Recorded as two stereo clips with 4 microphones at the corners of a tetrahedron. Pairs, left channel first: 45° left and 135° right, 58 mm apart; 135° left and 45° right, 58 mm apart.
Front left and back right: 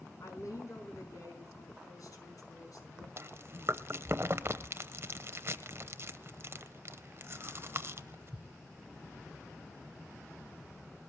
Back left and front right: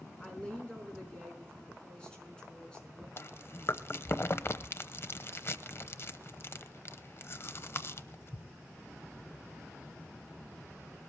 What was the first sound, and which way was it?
A woman speaking, 60° left.